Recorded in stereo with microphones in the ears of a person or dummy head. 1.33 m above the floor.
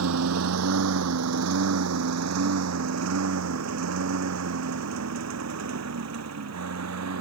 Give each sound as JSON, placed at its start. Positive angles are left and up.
{"t": 0.0, "sound": "a lawn mower", "side_deg": -80}